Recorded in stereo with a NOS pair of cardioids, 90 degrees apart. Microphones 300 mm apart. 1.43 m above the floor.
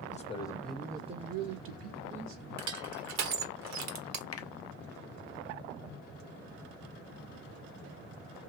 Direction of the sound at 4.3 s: 55° left.